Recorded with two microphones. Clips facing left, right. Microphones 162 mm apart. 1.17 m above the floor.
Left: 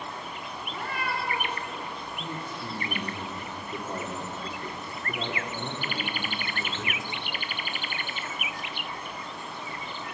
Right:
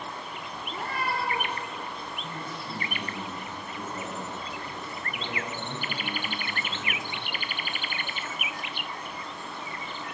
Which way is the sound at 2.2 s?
65° left (ahead or behind).